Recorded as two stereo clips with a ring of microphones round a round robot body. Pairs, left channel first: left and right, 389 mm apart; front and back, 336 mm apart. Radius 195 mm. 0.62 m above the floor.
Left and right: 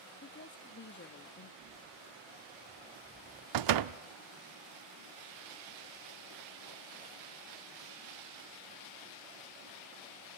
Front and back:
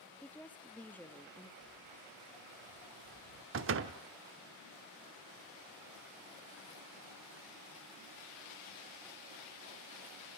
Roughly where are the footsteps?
Ahead.